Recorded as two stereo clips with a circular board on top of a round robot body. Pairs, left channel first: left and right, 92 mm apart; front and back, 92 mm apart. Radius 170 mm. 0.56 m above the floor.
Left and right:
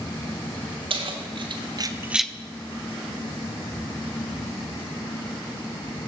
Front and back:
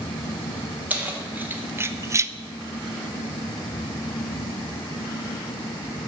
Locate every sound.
0.9 s keys jangling: 105° right, 1.4 m; by 2.3 s 150° left, 0.5 m